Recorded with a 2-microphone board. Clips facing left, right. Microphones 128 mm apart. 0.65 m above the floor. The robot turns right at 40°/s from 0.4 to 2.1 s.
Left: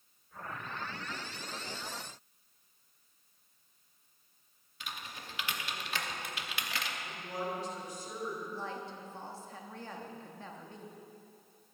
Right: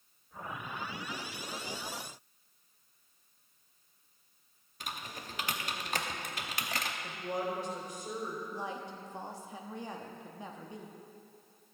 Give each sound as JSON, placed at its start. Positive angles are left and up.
{"t": 4.8, "sound": "typing on a keyboard", "side_deg": -45, "distance_m": 0.8}
{"t": 7.0, "sound": "a woman speaking", "side_deg": -60, "distance_m": 3.0}
{"t": 8.5, "sound": "a woman speaking", "side_deg": -15, "distance_m": 0.8}